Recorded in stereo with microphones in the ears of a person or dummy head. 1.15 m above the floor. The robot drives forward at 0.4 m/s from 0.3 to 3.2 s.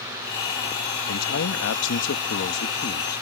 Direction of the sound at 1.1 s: 85° left.